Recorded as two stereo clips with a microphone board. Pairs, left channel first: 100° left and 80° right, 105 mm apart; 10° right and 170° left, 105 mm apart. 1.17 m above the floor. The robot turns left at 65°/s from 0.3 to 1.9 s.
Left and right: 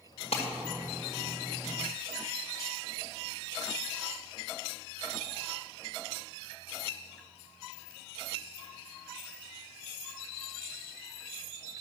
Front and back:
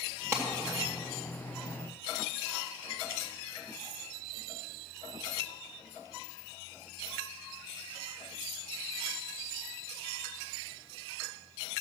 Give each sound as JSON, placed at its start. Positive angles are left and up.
{"t": 0.3, "sound": "a clap", "azimuth_deg": 105, "distance_m": 2.0}